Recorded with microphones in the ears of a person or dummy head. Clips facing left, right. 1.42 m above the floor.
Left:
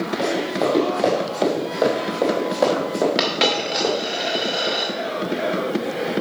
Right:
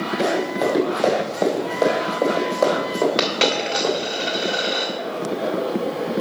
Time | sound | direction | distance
0.2 | running footsteps | 5° right (ahead or behind) | 3.5 m
3.2 | a dropped coin | centre (ahead or behind) | 1.8 m